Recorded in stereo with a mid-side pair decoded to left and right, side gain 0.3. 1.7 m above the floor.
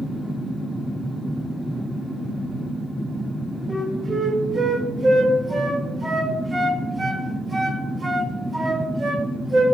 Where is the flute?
45° right, 1.2 m.